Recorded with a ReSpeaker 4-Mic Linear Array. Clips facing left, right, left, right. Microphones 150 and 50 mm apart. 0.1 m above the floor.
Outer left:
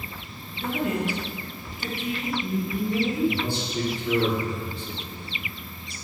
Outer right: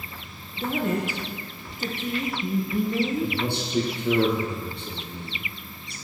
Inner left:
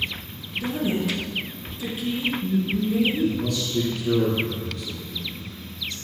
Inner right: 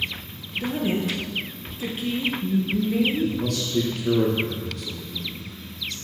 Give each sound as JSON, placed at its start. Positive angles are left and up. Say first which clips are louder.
{"t": 0.6, "sound": "a woman speaking", "louder": "outer right 1 dB, even", "side_deg": -45, "distance_m": 2.5}
{"t": 3.2, "sound": "a man speaking", "louder": "outer left 2 dB, inner left 1 dB", "side_deg": -65, "distance_m": 3.5}